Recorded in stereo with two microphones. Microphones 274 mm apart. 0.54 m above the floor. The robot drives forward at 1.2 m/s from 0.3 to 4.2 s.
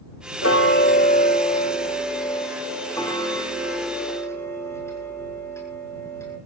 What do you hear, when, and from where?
0.4 s ticking: 50° left (ahead or behind), 1.1 m; by 6.4 s 10° left (ahead or behind), 5 m